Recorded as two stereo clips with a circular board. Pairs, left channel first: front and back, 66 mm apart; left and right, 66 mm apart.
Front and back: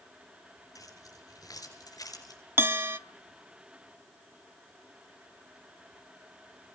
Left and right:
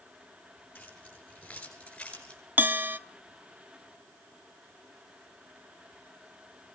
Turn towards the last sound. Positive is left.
turn(degrees=-140)